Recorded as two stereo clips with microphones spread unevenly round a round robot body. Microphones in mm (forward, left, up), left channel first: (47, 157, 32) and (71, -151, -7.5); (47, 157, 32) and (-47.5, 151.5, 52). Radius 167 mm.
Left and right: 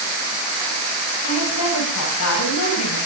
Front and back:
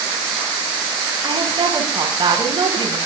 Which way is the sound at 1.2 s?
145° left.